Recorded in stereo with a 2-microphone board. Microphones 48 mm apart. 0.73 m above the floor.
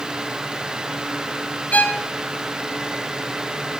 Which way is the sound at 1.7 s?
40° left (ahead or behind).